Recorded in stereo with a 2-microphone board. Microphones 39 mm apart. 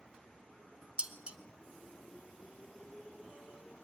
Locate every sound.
1.0 s dishes clattering: 30° right (ahead or behind), 1.1 m